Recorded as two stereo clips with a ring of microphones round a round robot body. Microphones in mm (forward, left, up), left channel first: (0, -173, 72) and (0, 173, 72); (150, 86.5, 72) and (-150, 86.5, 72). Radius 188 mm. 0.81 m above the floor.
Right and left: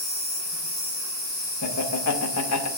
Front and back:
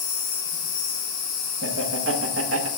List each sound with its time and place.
0.0 s an insect: 30° right, 4.5 m
1.6 s laughter: 130° right, 1.0 m